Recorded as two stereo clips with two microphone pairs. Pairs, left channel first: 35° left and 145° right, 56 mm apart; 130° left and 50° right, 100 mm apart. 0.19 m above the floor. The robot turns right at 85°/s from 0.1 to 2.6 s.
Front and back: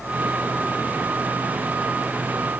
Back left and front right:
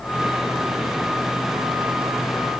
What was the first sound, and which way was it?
Only background noise.